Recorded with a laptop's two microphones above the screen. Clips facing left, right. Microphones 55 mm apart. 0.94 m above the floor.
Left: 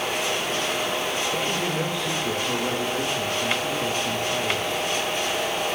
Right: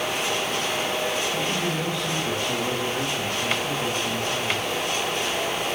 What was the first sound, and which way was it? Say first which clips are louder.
A man speaking: even; 25° left (ahead or behind).